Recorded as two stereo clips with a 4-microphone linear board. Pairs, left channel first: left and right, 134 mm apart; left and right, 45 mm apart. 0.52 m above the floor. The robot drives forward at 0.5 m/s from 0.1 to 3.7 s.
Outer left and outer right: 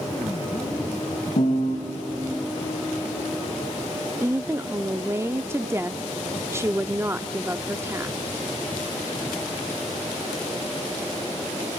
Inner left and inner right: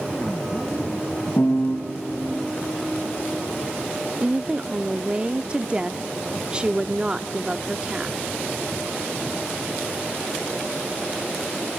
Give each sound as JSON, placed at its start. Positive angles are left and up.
{"t": 1.4, "sound": "a piano", "side_deg": 75, "distance_m": 1.5}
{"t": 4.2, "sound": "a woman speaking", "side_deg": -20, "distance_m": 0.6}